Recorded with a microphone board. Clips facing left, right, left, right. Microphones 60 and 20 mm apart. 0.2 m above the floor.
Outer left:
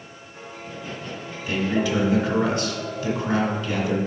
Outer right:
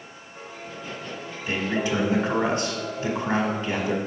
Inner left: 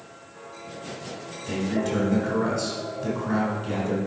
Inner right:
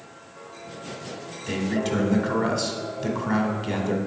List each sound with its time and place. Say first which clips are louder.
1.5 s a man speaking: outer left 2 dB, inner right 1 dB; 35° right (ahead or behind), 1.3 m